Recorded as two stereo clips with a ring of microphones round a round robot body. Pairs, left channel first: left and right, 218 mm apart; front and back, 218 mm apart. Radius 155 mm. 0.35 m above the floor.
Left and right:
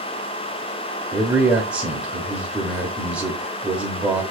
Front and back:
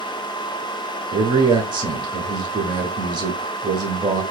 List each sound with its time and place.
1.1 s a man speaking: 165° right, 0.8 m